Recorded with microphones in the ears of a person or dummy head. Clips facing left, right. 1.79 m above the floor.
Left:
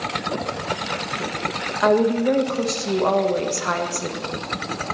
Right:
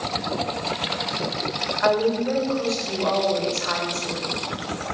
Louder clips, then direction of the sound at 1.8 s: Left 3 dB; 55° left (ahead or behind).